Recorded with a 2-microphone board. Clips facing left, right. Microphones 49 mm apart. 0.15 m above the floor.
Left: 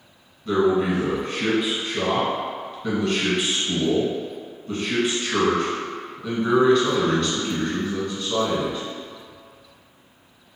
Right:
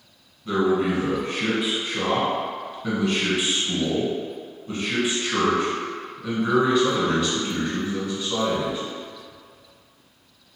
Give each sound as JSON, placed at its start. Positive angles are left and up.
{"t": 0.5, "sound": "a man speaking", "side_deg": -5, "distance_m": 1.1}